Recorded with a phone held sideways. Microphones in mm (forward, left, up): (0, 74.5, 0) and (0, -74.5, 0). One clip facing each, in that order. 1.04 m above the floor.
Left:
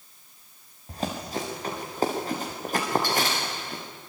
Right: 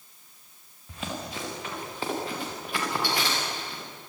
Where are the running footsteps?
40° left (ahead or behind), 6.5 m; by 3.8 s 50° left (ahead or behind), 5.5 m.